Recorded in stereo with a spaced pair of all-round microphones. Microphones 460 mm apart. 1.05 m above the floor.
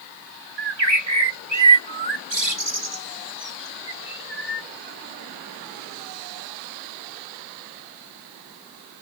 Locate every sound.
0.6 s a bird: 65° right (ahead or behind)